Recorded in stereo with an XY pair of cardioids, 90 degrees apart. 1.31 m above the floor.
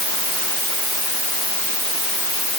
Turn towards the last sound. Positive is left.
No sound to turn to.